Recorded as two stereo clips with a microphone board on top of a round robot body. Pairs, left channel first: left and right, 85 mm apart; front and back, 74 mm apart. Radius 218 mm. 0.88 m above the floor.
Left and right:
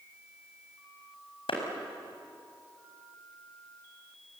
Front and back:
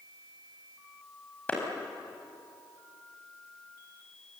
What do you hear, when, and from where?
1.5 s a clap: 70° left, 5 m